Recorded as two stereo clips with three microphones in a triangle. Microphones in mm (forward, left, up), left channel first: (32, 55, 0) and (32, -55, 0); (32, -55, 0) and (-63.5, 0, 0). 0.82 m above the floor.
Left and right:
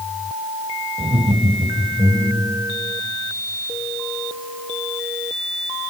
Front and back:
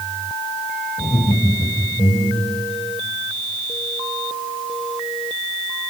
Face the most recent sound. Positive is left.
turn(degrees=-30)